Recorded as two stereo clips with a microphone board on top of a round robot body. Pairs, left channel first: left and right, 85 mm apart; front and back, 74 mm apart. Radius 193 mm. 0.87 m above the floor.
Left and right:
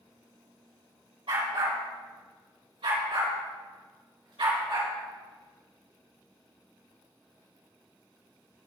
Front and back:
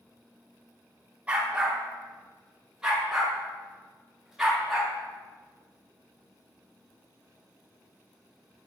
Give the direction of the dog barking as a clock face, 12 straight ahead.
4 o'clock.